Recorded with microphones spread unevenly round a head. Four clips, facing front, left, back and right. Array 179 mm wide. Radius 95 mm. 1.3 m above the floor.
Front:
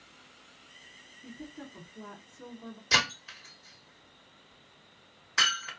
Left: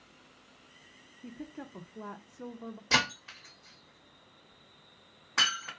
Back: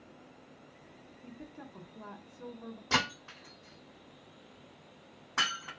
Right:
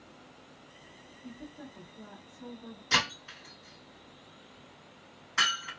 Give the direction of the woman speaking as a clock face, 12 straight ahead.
9 o'clock.